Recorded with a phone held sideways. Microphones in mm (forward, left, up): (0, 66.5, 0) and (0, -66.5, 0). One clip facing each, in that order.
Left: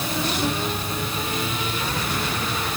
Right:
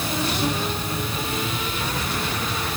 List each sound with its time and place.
Only background noise.